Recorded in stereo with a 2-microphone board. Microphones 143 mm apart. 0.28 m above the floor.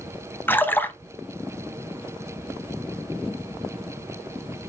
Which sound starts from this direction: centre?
A splash, at 0.5 s.